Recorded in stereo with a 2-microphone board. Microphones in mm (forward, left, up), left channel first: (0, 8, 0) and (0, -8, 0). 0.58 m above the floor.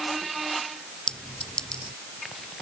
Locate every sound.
1.1 s a clink: 50° left (ahead or behind)